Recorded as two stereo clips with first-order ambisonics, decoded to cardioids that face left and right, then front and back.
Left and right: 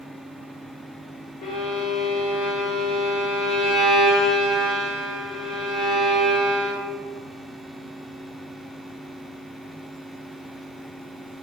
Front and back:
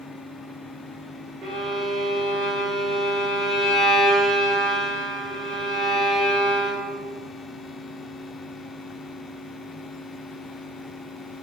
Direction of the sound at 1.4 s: 110° left.